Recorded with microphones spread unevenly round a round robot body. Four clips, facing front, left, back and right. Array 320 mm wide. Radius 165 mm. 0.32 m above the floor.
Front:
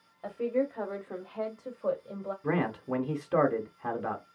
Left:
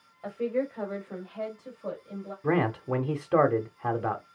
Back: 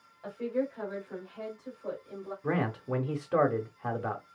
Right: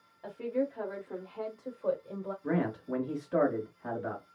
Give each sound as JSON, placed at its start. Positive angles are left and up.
{"t": 0.2, "sound": "a woman speaking", "azimuth_deg": 45, "distance_m": 1.8}
{"t": 2.4, "sound": "a man speaking", "azimuth_deg": 85, "distance_m": 1.2}